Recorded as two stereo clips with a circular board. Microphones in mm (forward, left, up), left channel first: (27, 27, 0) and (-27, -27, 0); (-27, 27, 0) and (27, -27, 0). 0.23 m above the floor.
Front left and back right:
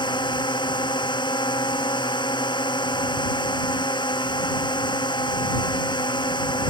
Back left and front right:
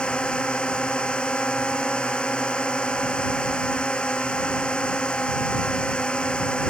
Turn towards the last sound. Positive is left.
turn(degrees=60)